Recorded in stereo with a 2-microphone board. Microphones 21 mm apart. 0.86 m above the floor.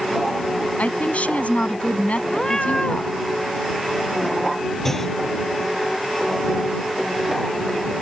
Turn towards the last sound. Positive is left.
turn(degrees=15)  # may be behind; listen again after turning